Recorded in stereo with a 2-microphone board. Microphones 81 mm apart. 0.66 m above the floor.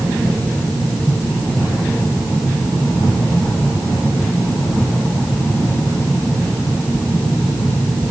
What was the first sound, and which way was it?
Only background noise.